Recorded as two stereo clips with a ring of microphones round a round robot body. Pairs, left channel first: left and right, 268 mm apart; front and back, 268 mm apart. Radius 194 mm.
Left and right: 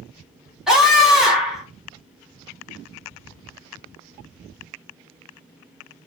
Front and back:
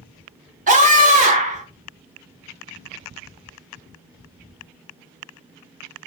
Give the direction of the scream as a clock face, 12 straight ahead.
6 o'clock.